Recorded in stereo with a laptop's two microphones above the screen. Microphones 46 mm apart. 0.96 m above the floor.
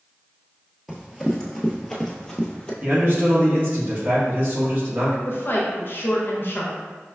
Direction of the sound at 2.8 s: 40° right (ahead or behind).